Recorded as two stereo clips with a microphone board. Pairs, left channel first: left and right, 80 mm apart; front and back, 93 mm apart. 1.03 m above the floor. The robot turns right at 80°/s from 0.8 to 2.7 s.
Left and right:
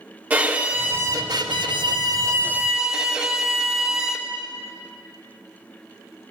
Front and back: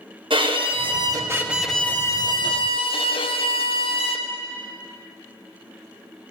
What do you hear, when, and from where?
0.3 s a violin: 160° right, 1.1 m; by 4.3 s 5° right, 1.1 m